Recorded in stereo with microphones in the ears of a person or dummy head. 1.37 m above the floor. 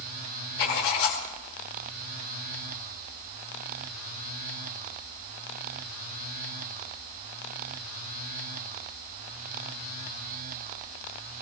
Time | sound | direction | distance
0.6 | writing | 70° left (ahead or behind) | 4.5 m